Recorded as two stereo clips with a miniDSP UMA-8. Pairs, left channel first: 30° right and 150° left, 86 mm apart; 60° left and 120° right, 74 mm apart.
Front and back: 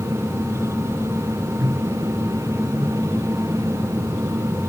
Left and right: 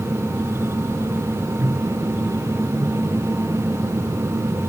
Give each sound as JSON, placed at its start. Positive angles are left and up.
{"t": 1.6, "sound": "a microwave", "azimuth_deg": -165}